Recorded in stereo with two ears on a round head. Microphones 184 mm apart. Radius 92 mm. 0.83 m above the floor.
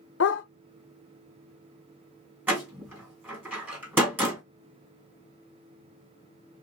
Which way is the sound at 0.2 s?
60° left (ahead or behind).